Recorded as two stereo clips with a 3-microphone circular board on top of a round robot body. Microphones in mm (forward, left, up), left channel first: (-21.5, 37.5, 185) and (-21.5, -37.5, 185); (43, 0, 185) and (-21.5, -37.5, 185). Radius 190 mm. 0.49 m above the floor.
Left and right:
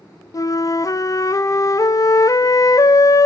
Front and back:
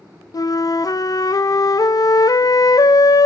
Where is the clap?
No clap in this recording.